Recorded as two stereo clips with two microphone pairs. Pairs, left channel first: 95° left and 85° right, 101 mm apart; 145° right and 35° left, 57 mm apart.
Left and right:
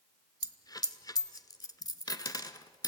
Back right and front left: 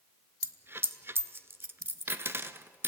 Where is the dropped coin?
65° left, 0.7 m.